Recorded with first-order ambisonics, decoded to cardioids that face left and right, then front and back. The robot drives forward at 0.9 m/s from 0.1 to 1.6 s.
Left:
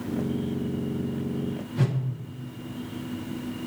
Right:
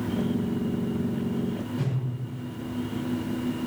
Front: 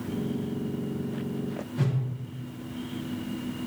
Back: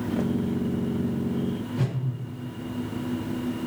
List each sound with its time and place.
1.8 s a whoosh: 95° left, 1.0 m